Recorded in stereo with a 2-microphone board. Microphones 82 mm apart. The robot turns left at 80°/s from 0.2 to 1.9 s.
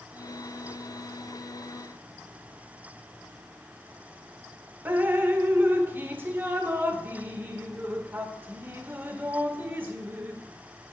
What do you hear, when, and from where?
4.8 s dripping: 25° right (ahead or behind), 0.9 m